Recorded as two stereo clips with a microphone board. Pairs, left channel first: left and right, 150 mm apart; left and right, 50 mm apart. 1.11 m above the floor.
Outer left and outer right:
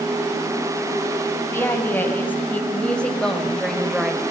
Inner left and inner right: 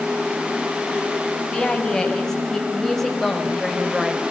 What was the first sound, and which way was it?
A woman speaking, 15° left (ahead or behind).